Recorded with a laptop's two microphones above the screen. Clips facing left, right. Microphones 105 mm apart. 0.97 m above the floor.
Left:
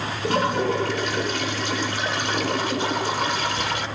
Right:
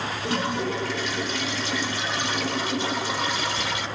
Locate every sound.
0.2 s a toilet flushing: 55° left (ahead or behind), 1.3 m